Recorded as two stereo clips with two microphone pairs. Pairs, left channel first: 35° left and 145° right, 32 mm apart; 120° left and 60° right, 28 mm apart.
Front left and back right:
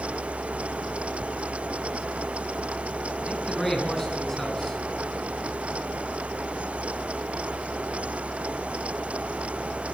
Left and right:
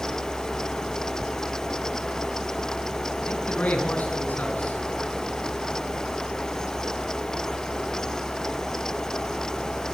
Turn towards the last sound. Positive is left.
turn(degrees=115)